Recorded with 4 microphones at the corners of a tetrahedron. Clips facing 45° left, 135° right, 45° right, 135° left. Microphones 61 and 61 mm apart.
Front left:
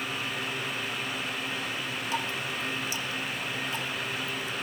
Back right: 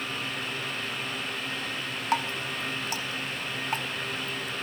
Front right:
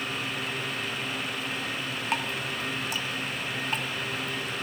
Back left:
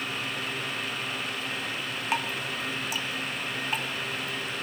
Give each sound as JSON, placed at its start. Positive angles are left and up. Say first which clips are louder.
{"t": 2.1, "sound": "dripping", "louder": "back right 5 dB, back left 1 dB", "azimuth_deg": -135, "distance_m": 1.5}